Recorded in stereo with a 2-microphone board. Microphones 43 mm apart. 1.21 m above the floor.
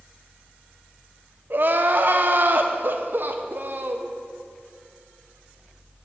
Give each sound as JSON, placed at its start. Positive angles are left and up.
{"t": 1.5, "sound": "crying", "side_deg": -50, "distance_m": 0.7}